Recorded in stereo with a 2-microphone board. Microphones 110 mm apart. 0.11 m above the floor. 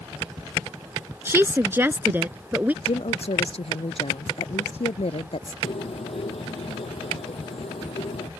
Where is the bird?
60° left (ahead or behind).